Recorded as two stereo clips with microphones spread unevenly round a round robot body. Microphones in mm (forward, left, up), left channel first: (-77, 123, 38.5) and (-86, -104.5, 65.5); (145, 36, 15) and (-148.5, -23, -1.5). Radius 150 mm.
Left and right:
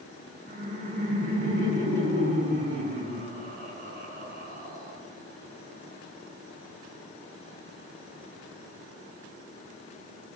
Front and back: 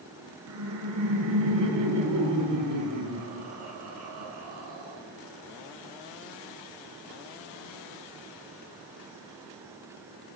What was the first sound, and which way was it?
Laughter, 140° right.